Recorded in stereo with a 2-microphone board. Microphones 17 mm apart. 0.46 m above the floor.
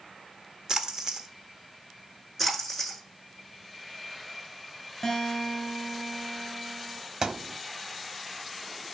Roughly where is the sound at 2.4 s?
Centre.